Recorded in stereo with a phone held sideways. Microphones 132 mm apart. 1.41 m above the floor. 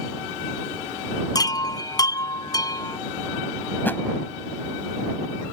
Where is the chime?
30° left (ahead or behind).